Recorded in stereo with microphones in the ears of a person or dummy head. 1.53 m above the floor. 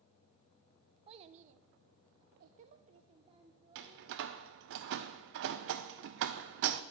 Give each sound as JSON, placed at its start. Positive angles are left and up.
{"t": 1.1, "sound": "a child speaking", "side_deg": -25, "distance_m": 0.7}
{"t": 3.8, "sound": "a door slam", "side_deg": -60, "distance_m": 0.6}